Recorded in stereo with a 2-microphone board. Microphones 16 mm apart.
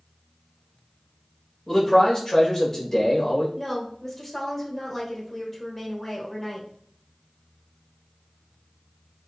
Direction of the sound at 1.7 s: 30° left (ahead or behind).